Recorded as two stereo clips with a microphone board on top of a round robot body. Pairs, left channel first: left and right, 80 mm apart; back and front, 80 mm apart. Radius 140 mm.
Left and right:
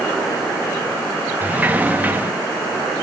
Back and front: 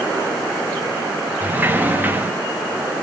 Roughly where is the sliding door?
Ahead right.